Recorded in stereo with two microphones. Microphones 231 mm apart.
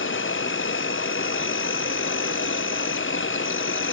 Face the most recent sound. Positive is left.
turn(degrees=60)  # may be behind; listen again after turning